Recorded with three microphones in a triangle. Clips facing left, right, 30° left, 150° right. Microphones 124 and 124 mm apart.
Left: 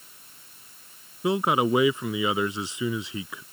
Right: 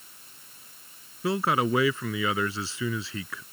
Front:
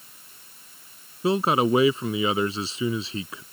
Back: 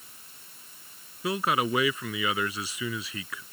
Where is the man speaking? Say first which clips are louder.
Left 2 dB, front 6 dB; 40° left.